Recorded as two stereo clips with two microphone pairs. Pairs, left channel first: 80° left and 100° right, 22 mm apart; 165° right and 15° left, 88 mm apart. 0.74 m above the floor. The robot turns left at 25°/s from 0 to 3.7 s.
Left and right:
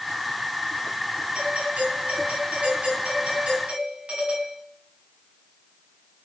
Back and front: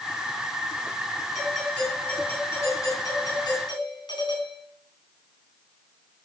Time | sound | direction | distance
1.4 | a doorbell | 75° right | 9 m